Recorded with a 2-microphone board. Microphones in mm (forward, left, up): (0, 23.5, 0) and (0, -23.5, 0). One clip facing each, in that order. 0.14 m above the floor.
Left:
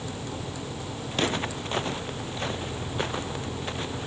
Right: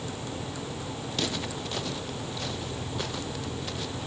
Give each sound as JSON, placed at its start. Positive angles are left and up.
{"t": 1.1, "sound": "footsteps", "side_deg": 35}